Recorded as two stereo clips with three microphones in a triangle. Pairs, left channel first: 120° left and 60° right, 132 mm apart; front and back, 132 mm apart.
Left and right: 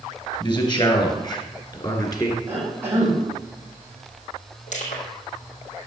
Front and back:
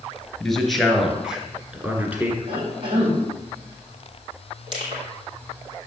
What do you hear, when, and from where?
0.4 s a man speaking: 85° left, 2.5 m; by 2.4 s 125° left, 1.9 m
2.5 s a cough: 130° right, 4.5 m
4.7 s crushing: 135° left, 3.5 m